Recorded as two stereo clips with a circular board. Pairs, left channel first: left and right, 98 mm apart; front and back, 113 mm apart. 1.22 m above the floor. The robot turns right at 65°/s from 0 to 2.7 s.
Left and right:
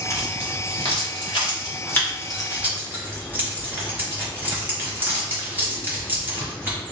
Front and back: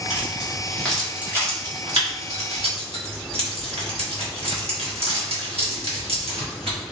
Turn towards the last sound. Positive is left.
turn(degrees=-160)